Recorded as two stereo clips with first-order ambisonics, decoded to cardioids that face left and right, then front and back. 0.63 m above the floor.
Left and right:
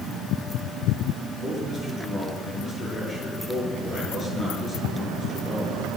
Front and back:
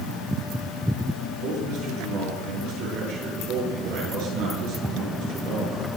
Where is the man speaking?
155° left, 8 m.